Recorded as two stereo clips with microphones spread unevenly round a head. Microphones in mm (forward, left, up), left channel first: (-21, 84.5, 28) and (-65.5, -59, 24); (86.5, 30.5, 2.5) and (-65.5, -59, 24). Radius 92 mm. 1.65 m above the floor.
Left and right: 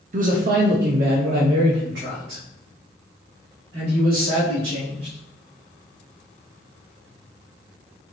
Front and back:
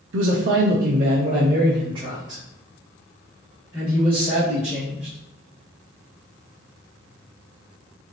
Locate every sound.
0.1 s a man speaking: 145° right, 0.7 m; by 5.2 s 65° right, 3 m